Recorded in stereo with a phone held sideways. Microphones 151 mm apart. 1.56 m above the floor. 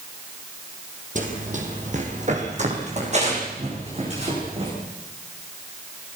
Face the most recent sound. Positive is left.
turn(degrees=-45)  # may be behind; listen again after turning